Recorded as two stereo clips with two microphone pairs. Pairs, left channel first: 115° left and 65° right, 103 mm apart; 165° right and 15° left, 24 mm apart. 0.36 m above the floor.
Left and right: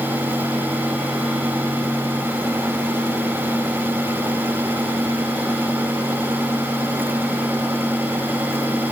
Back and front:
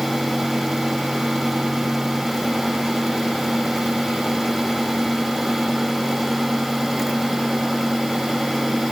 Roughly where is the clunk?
I don't hear a clunk.